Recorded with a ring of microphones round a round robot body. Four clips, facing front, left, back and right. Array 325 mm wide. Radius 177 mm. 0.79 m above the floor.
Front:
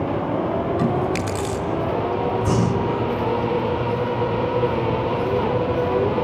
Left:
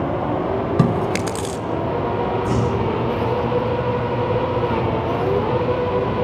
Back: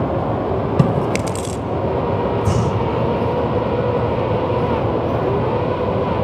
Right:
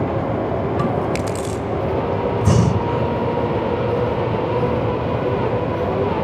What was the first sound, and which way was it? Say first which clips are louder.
Chewing: left 1 dB, back 3 dB; 150° left.